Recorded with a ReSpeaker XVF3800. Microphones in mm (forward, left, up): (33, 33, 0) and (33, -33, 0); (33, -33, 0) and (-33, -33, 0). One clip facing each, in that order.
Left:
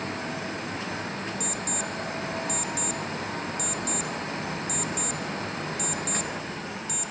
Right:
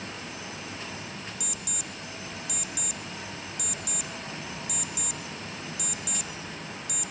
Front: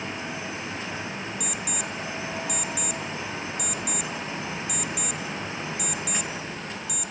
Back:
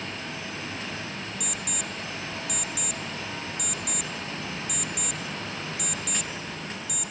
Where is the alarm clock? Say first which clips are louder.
Left 8 dB, front 3 dB; 85° left, 1.1 m.